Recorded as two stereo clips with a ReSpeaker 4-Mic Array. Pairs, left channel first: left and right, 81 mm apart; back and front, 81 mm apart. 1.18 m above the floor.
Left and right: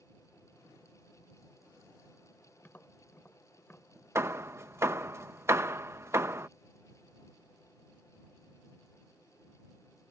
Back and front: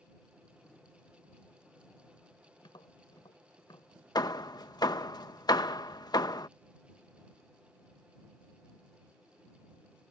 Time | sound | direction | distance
2.6 | tapping | 155° left | ?
4.2 | hammering | 145° right | ?